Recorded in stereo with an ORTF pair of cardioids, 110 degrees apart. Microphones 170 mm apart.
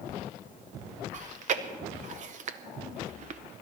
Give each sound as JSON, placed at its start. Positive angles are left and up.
{"t": 1.1, "sound": "chewing", "azimuth_deg": -50, "distance_m": 0.9}